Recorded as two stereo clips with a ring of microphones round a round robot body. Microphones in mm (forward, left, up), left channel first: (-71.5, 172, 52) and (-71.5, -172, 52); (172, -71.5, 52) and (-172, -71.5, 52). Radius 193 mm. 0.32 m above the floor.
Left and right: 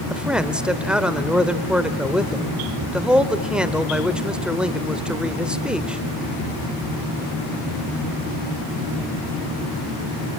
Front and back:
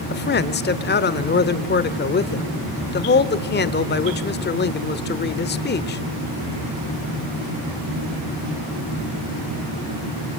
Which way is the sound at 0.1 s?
5° right.